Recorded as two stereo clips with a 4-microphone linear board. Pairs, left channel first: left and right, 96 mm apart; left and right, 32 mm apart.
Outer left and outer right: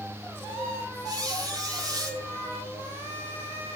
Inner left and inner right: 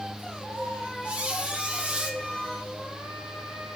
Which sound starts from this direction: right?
A squeak, at 1.1 s.